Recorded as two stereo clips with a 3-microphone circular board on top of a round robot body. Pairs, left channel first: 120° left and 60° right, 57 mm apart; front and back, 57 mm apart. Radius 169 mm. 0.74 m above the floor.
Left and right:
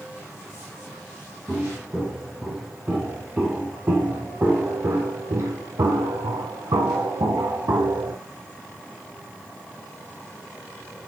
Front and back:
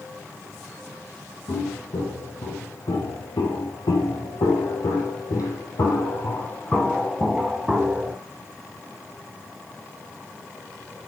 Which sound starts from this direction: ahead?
Footsteps, at 1.5 s.